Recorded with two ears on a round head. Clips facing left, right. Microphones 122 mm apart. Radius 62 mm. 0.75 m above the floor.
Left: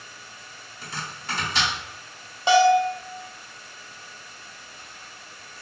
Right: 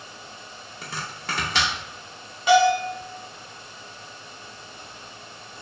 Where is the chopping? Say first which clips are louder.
Right 1 dB; 50° right (ahead or behind), 0.5 m.